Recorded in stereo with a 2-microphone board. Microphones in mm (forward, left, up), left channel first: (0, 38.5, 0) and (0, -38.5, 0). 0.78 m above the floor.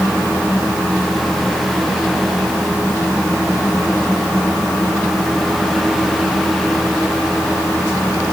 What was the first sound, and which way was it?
Only background noise.